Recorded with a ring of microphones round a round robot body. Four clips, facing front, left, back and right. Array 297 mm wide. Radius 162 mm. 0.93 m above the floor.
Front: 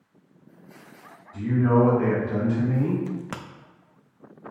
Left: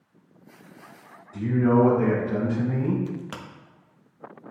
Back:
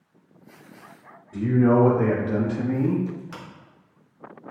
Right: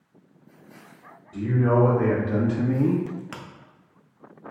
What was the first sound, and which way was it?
A man speaking, 160° right.